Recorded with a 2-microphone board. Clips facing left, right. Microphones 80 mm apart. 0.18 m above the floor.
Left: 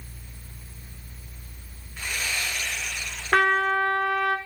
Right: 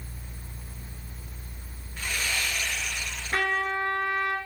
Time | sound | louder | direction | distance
2.0 | sawing | even | 10° left (ahead or behind) | 2.0 m
3.3 | a trumpet | left 7 dB | 70° left (ahead or behind) | 0.6 m